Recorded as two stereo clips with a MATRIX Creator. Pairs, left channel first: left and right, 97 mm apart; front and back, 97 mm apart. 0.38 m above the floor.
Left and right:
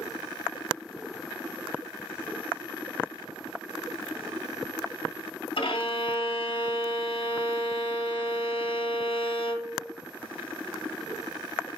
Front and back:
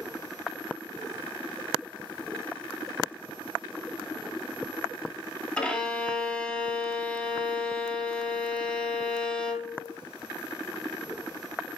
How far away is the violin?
About 1.8 m.